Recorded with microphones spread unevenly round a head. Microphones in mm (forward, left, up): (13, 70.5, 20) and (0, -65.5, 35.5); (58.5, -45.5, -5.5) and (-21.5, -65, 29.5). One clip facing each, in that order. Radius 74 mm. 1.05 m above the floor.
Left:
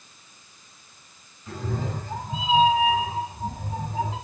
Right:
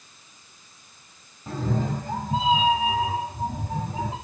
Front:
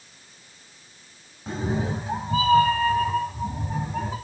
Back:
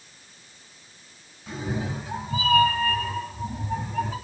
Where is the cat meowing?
45° right, 1.9 m; by 4.2 s 60° right, 3.5 m.